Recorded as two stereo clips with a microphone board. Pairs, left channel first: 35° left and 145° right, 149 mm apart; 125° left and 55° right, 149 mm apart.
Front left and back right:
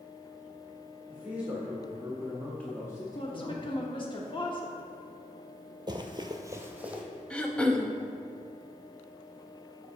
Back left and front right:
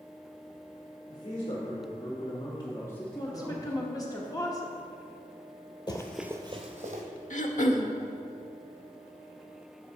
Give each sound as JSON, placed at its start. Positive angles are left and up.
{"t": 1.1, "sound": "a man speaking", "azimuth_deg": 140, "distance_m": 1.7}
{"t": 3.1, "sound": "a woman speaking", "azimuth_deg": 70, "distance_m": 0.9}
{"t": 5.9, "sound": "running footsteps", "azimuth_deg": 170, "distance_m": 0.7}
{"t": 7.3, "sound": "throat clearing", "azimuth_deg": 115, "distance_m": 0.6}